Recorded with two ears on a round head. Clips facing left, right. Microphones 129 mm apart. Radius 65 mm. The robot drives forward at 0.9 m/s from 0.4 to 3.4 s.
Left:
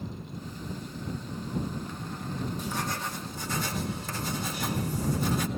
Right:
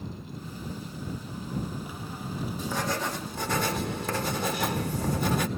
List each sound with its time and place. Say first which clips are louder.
2.6 s writing: right 3 dB; 75° right (ahead or behind), 1.1 m; by 5.5 s 55° right (ahead or behind), 1.3 m